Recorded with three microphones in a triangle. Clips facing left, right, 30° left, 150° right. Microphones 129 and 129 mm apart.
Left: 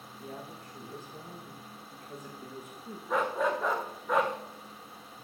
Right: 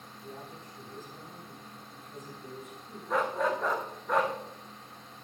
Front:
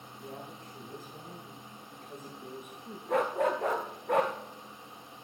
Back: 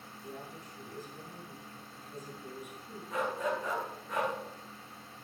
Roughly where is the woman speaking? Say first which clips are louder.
Left 2 dB, front 1 dB; ahead left.